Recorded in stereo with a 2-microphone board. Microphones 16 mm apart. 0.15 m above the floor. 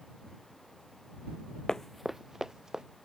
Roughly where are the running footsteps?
Left.